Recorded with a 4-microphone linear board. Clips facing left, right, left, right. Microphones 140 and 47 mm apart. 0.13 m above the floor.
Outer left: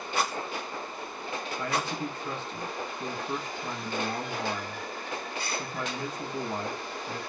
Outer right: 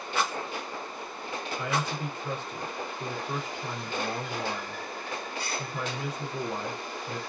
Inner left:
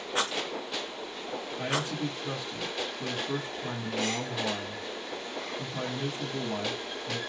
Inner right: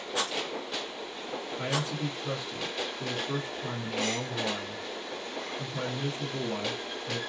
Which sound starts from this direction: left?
A rattle, at 0.1 s.